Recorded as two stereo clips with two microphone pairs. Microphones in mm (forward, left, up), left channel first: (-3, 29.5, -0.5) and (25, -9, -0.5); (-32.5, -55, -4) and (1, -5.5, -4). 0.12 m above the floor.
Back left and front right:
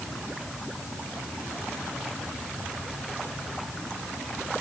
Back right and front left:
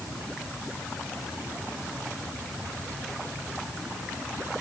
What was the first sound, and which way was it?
Only background noise.